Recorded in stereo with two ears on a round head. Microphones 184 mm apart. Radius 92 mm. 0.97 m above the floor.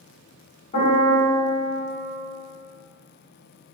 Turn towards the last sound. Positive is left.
turn(degrees=30)  # may be behind; listen again after turning